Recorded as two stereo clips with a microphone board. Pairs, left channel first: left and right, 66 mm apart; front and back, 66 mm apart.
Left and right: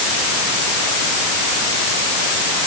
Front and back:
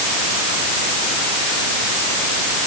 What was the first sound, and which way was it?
Only background noise.